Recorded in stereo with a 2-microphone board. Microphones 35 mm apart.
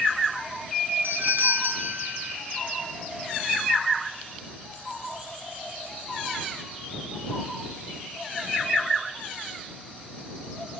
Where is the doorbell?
65° right (ahead or behind).